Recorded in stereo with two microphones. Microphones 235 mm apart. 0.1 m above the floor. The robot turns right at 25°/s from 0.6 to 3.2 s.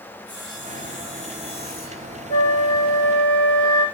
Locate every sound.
0.3 s sawing: 60° left, 2.5 m; by 2.1 s 95° left, 2.5 m
2.3 s a flute: 70° left (ahead or behind), 3.5 m; by 3.9 s 60° left (ahead or behind), 3.5 m